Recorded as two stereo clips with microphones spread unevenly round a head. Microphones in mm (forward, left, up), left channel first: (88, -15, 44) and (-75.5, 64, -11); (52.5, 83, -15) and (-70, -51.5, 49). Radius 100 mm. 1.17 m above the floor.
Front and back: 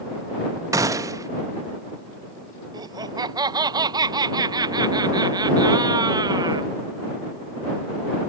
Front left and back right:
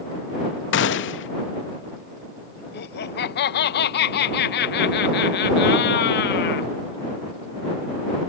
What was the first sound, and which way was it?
A gunshot, 75° left.